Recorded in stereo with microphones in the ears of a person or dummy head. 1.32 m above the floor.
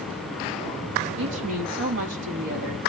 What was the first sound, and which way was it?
A woman speaking, 75° right (ahead or behind).